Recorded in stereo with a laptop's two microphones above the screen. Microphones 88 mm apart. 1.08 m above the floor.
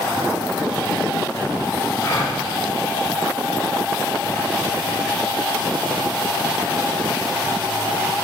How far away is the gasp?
About 4 m.